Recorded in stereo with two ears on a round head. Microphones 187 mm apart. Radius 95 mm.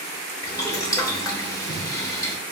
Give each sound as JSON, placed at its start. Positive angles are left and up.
{"t": 0.4, "sound": "boiling", "side_deg": 15, "distance_m": 0.6}